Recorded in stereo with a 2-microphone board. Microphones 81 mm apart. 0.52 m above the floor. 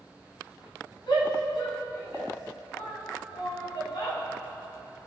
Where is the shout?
75° left (ahead or behind), 4 m.